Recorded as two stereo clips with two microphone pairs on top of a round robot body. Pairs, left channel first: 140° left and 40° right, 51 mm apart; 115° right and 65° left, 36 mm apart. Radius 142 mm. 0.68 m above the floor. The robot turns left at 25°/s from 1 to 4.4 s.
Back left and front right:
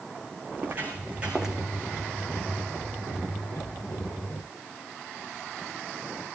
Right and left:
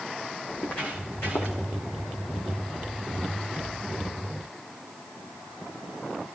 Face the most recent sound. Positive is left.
turn(degrees=165)